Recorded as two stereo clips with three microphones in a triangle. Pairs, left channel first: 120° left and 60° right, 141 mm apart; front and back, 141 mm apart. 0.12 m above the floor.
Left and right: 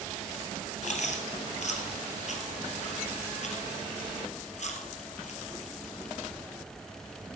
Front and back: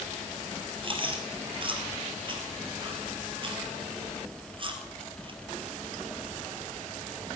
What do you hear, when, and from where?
0.8 s chewing: 135° left, 2.5 m